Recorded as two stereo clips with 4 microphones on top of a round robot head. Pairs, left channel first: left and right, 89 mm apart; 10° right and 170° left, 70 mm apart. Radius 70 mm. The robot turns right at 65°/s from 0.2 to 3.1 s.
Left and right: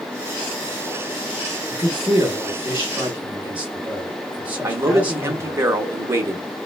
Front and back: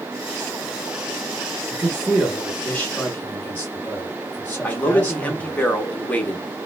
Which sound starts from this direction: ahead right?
A man speaking, at 4.6 s.